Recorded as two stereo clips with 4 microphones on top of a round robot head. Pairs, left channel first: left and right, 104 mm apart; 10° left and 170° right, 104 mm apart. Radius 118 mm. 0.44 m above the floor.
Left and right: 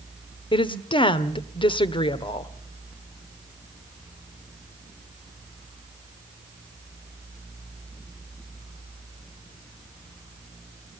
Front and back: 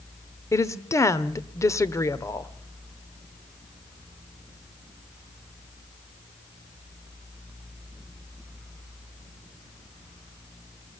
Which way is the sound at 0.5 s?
65° left.